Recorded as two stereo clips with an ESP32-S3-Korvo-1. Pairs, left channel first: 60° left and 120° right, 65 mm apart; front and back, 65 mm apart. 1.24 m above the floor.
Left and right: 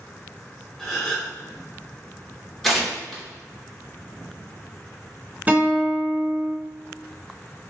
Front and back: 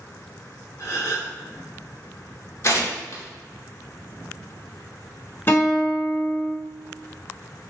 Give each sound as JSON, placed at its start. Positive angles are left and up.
{"t": 0.8, "sound": "a gasp", "azimuth_deg": -30, "distance_m": 1.7}
{"t": 2.6, "sound": "tearing paper", "azimuth_deg": -25, "distance_m": 1.3}
{"t": 5.5, "sound": "a guitar", "azimuth_deg": -55, "distance_m": 1.4}